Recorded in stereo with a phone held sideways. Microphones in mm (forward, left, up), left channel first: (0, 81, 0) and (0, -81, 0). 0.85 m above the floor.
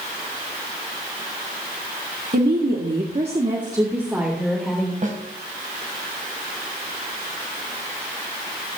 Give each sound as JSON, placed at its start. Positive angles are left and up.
{"t": 2.3, "sound": "a woman speaking", "side_deg": -75, "distance_m": 1.9}
{"t": 5.0, "sound": "a snare drum", "side_deg": -50, "distance_m": 2.5}